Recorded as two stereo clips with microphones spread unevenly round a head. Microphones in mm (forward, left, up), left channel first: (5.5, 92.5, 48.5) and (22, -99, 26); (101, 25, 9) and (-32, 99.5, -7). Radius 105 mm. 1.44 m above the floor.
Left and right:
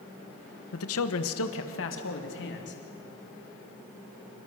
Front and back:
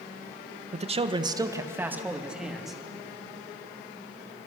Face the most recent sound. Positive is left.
turn(degrees=60)